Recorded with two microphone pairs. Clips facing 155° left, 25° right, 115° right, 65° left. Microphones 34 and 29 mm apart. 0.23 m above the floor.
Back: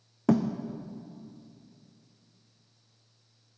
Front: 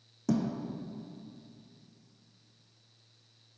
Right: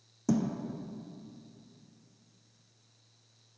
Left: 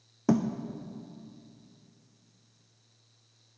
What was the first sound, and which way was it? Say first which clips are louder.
A thud: back 5 dB, left 3 dB; 115° left.